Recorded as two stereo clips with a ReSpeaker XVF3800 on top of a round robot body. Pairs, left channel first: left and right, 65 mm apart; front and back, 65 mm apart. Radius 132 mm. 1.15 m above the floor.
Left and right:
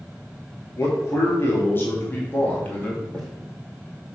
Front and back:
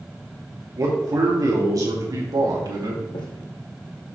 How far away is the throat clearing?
I don't hear throat clearing.